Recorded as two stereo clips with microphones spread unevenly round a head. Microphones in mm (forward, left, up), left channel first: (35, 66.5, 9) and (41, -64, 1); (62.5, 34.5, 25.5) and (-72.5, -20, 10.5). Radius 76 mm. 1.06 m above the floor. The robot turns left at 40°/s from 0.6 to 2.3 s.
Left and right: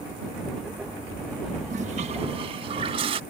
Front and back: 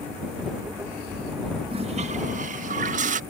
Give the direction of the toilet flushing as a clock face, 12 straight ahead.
4 o'clock.